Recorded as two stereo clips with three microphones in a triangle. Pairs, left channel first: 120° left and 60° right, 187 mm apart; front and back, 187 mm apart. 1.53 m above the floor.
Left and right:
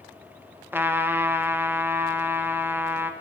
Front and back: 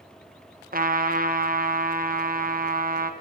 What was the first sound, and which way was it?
A trumpet, 140° right.